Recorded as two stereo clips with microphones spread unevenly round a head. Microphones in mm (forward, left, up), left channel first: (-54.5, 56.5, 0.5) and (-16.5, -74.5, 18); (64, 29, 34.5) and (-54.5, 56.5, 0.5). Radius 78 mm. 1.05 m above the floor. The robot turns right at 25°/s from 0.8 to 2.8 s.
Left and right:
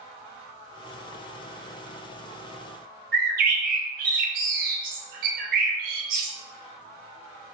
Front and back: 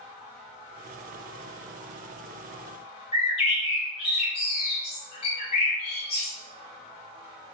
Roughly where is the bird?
Ahead right.